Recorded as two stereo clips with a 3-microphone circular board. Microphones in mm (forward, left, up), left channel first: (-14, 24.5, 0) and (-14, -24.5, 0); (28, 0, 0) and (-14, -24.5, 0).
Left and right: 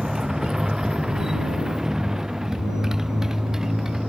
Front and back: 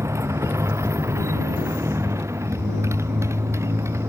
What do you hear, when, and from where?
0.0 s a motorcycle: 170° right